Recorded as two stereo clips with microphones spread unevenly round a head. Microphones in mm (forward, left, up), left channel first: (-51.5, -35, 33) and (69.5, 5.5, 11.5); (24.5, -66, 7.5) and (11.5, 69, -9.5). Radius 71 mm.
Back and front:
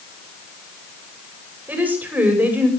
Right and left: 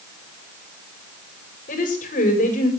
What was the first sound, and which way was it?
A woman speaking, 60° right.